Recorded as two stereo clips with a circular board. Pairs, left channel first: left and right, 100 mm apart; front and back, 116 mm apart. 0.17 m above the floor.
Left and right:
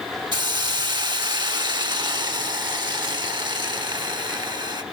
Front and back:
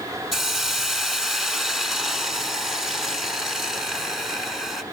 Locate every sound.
0.3 s a hiss: 95° right, 1.3 m